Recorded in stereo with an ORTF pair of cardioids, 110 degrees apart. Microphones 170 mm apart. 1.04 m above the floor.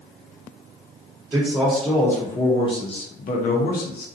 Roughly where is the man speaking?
Ahead.